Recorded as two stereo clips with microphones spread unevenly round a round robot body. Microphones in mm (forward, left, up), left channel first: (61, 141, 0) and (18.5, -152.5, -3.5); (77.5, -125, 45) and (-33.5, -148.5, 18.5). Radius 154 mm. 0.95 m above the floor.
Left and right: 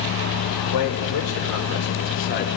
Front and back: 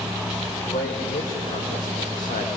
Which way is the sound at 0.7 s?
65° left.